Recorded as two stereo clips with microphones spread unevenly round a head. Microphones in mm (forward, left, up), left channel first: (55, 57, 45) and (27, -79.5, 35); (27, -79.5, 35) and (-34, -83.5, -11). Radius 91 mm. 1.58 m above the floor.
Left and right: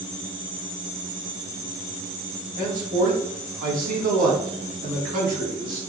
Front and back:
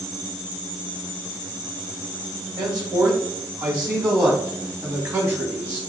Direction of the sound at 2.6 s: 155° right.